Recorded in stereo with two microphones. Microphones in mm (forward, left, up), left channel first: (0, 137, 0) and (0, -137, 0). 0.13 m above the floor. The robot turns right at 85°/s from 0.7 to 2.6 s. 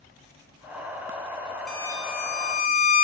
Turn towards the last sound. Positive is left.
turn(degrees=80)